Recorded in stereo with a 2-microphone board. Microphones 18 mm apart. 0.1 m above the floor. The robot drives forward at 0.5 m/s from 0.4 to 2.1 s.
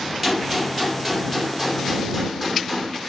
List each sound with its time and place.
0.2 s a gunshot: 15° right (ahead or behind), 2.0 m; by 3.0 s 10° right (ahead or behind), 2.5 m